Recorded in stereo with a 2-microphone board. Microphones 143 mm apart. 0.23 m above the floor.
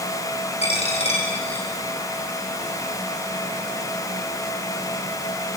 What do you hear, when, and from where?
0.6 s a dropped coin: 50° left (ahead or behind), 6 m